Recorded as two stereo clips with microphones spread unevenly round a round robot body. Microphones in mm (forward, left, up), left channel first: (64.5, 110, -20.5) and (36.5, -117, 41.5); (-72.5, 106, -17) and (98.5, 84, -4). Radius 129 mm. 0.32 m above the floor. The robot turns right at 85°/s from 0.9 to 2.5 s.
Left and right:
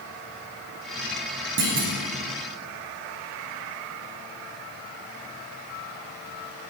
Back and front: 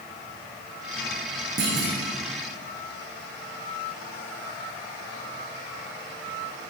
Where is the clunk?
60° right, 5.5 m; by 1.9 s 35° right, 5.5 m.